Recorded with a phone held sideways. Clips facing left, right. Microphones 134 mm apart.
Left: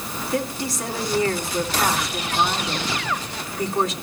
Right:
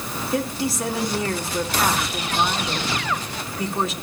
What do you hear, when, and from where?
0.3 s a woman speaking: centre (ahead or behind), 2.5 m